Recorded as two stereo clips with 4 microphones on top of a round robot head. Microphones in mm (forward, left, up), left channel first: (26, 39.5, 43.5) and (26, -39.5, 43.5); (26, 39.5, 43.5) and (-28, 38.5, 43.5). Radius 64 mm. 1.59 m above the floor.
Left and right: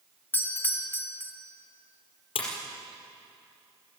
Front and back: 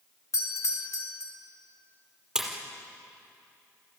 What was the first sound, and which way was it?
A doorbell, 25° left.